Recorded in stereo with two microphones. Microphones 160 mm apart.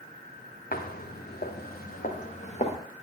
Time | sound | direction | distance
0.7 | footsteps | 70° left (ahead or behind) | 1.3 m